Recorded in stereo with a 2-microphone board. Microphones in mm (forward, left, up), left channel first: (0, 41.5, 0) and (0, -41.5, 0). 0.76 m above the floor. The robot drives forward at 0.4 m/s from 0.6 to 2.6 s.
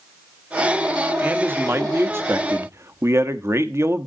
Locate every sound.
1.2 s a man speaking: 25° right (ahead or behind), 1.7 m; by 4.1 s 35° right (ahead or behind), 1.2 m